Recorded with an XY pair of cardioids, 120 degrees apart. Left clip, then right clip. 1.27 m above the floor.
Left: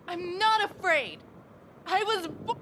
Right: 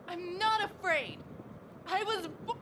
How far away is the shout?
About 0.7 m.